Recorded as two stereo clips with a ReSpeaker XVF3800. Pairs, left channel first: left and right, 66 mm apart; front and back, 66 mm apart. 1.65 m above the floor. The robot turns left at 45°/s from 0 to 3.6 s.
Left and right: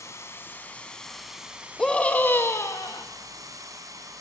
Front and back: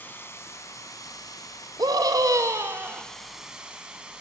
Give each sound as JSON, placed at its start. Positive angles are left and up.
{"t": 0.0, "sound": "running water", "azimuth_deg": 55, "distance_m": 3.0}
{"t": 1.8, "sound": "a scream", "azimuth_deg": 175, "distance_m": 2.5}